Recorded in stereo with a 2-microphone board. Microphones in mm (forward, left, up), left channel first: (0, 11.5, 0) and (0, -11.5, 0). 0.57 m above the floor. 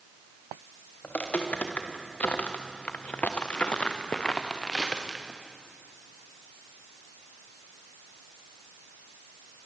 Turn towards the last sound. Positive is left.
turn(degrees=5)  # may be behind; listen again after turning